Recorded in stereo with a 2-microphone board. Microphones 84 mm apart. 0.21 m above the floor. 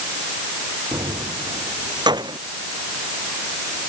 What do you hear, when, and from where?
0.9 s keys jangling: 55° right (ahead or behind)